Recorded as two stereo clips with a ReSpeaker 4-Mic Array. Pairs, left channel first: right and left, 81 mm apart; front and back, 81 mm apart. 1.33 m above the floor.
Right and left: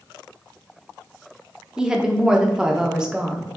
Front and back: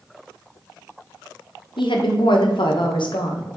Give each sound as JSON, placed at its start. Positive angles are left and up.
{"t": 1.8, "sound": "a woman speaking", "azimuth_deg": 10, "distance_m": 1.1}